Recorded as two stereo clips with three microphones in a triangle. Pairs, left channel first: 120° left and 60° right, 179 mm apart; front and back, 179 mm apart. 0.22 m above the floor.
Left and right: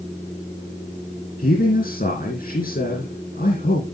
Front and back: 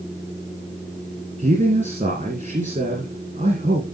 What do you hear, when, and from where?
1.4 s a man speaking: 145° left, 2.5 m